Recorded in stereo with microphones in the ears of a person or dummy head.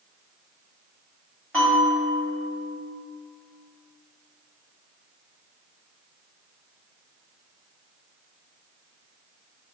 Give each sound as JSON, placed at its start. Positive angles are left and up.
{"t": 1.5, "sound": "a bell", "side_deg": 5, "distance_m": 1.5}